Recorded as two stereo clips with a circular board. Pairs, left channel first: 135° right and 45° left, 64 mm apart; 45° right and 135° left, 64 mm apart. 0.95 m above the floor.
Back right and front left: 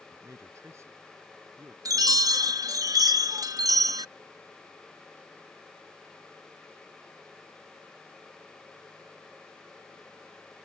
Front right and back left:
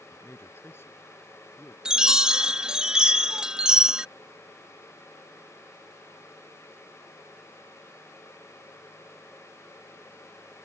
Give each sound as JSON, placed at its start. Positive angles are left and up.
{"t": 0.1, "sound": "a man speaking", "azimuth_deg": 5}
{"t": 1.9, "sound": "a chime", "azimuth_deg": 60}